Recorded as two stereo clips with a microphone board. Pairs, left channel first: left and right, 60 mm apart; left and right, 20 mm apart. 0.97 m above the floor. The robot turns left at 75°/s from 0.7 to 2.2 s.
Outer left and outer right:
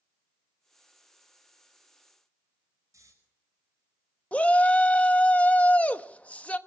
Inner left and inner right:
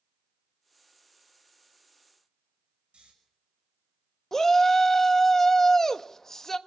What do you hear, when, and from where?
2.9 s snoring: 70° right (ahead or behind), 6 m
4.3 s a shout: 25° left (ahead or behind), 1.0 m